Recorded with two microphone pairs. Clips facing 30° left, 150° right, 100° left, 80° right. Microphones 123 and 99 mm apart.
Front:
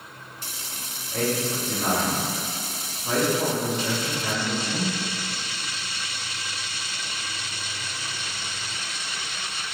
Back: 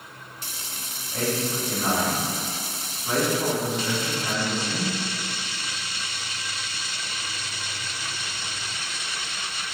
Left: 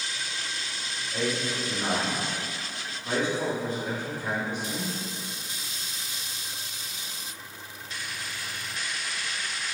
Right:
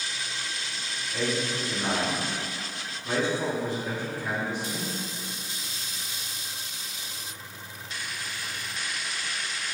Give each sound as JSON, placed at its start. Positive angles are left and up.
{"t": 1.1, "sound": "a man speaking", "azimuth_deg": 35, "distance_m": 1.5}